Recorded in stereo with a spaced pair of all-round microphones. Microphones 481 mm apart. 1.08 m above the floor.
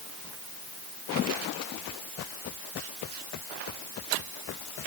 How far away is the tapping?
No tapping in this recording.